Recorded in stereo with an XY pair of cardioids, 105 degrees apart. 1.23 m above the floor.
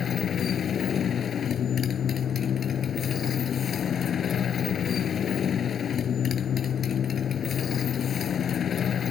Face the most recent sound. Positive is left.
turn(degrees=50)